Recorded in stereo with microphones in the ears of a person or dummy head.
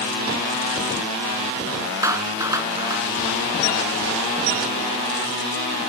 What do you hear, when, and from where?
2.0 s a clap: 15° right (ahead or behind)